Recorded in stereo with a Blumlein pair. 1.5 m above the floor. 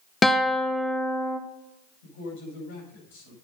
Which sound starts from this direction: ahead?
A guitar, at 0.2 s.